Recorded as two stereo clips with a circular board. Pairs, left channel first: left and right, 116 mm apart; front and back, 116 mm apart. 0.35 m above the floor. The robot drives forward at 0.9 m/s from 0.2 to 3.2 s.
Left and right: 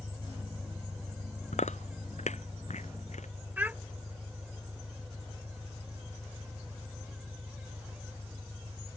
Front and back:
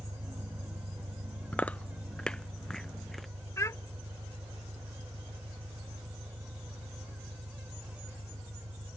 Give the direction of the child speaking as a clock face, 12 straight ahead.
1 o'clock.